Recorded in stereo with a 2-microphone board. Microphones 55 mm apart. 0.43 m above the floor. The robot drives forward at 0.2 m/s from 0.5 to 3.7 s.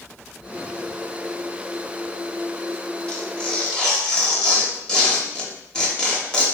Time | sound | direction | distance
3.1 | tearing paper | 15° left (ahead or behind) | 0.8 m